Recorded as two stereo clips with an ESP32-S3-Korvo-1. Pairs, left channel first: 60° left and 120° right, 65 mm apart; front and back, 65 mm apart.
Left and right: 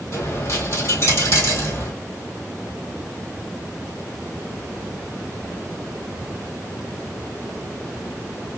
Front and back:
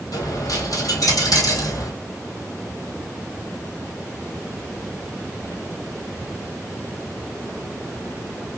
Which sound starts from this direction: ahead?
A dropped coin, at 0.1 s.